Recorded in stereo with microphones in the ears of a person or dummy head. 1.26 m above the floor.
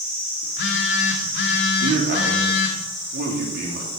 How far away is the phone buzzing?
About 1.7 m.